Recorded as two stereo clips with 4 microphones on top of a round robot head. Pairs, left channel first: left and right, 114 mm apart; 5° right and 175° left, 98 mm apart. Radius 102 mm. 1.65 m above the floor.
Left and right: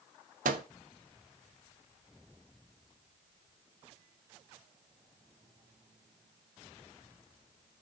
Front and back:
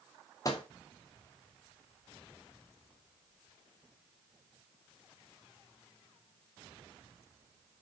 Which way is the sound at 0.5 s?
75° right.